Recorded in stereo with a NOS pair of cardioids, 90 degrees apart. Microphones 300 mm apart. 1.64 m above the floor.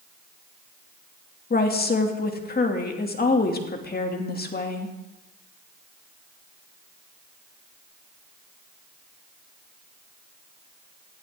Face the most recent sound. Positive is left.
turn(degrees=30)